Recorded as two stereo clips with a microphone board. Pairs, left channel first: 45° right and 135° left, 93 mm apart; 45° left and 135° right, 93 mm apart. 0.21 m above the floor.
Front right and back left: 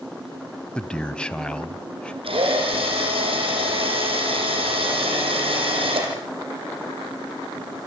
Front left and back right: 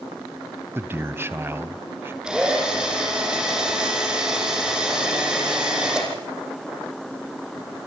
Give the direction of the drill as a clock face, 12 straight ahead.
7 o'clock.